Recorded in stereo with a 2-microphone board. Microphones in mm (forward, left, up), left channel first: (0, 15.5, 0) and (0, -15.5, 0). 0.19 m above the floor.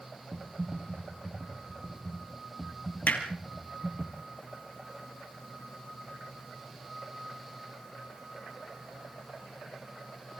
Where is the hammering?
70° left (ahead or behind), 3.5 m.